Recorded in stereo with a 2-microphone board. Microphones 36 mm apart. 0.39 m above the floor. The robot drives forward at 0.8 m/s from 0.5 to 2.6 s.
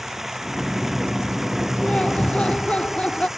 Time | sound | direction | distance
0.0 | running water | 10° right (ahead or behind) | ?
1.8 | laughter | 30° left (ahead or behind) | ?